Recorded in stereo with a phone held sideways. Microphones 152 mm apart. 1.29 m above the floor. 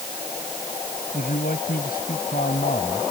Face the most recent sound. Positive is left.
turn(degrees=75)  # may be behind; listen again after turning